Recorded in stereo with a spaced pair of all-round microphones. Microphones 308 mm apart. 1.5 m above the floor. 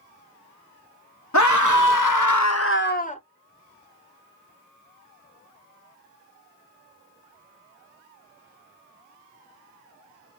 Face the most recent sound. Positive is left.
turn(degrees=20)  # may be behind; listen again after turning